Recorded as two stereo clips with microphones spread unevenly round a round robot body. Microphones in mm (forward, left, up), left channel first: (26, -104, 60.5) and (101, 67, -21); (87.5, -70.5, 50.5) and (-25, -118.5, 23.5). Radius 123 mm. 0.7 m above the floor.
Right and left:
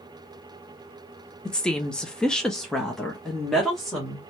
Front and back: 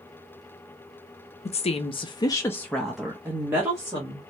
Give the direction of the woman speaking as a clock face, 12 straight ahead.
12 o'clock.